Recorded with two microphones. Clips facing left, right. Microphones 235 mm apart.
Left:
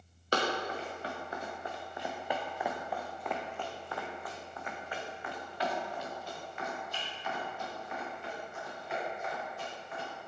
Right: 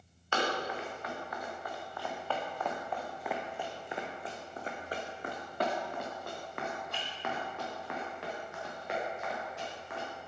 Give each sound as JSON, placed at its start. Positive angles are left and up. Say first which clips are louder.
{"t": 0.3, "sound": "running footsteps", "louder": "left 1 dB", "side_deg": 40, "distance_m": 2.5}